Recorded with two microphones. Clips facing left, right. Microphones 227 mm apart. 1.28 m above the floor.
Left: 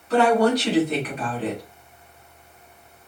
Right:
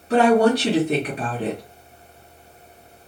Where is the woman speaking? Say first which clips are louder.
Right 2 dB; 45° right (ahead or behind), 2.5 m.